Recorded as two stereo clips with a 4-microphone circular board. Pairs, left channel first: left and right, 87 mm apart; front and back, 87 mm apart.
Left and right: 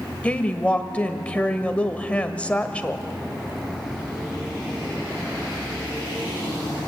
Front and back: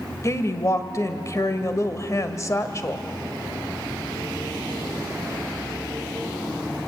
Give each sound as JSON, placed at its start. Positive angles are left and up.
{"t": 0.2, "sound": "a woman speaking", "azimuth_deg": 25, "distance_m": 1.3}